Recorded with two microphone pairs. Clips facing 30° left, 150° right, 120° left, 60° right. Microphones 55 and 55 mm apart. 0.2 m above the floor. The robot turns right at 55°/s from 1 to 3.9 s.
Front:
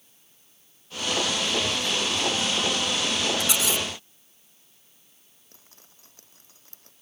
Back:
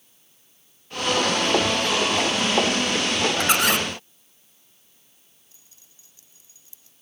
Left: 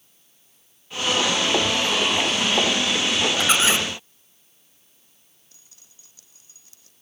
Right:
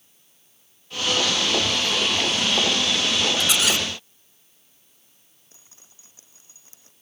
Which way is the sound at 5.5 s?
5° right.